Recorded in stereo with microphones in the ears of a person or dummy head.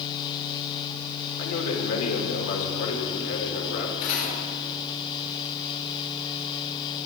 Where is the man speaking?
85° left, 3 m.